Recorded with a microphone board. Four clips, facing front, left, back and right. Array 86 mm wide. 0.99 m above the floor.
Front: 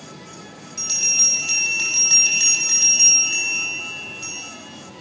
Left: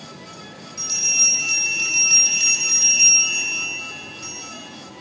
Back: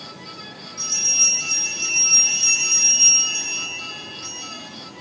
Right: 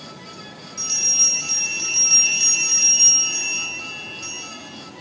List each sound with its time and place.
0.8 s a bell: straight ahead, 6 m